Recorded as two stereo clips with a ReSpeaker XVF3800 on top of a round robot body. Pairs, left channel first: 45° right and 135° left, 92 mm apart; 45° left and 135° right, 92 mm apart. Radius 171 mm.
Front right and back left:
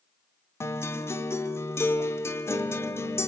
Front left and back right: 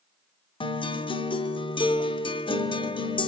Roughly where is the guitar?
Ahead.